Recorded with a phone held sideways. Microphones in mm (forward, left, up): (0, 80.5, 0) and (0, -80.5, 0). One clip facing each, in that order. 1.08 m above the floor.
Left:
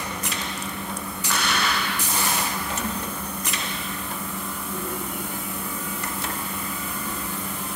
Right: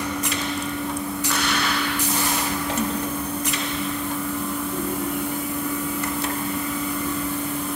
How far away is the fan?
About 1.6 m.